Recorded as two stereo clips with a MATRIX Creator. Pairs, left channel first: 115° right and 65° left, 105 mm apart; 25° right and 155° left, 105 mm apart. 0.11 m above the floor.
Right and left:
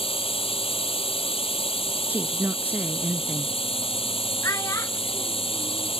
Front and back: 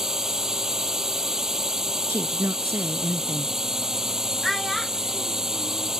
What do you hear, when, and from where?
0.0 s a drone: 115° right
2.1 s a woman speaking: 120° left
4.4 s a child speaking: 110° right